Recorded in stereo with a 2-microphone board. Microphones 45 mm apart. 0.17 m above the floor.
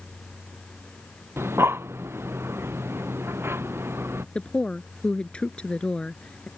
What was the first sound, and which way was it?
Breathing, 65° right (ahead or behind).